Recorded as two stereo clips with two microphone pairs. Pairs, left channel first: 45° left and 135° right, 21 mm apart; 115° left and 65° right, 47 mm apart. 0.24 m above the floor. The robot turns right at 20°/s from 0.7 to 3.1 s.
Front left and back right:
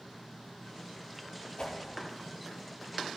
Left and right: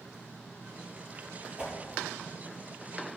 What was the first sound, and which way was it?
A whoosh, 5° left.